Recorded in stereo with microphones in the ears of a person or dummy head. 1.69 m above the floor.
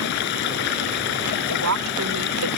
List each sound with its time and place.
0.0 s running water: 55° left (ahead or behind)
1.5 s a woman speaking: 75° right (ahead or behind)